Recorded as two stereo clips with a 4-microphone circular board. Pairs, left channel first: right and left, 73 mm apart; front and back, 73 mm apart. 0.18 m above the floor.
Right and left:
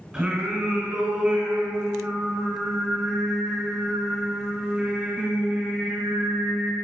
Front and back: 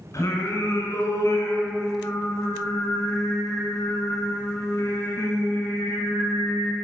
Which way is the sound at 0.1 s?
25° left.